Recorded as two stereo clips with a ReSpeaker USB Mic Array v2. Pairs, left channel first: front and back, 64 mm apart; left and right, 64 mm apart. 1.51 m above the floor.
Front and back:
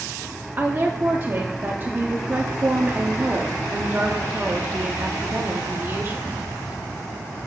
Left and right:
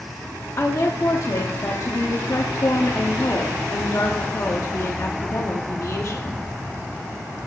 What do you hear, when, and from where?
0.6 s a woman speaking: 130° left, 0.8 m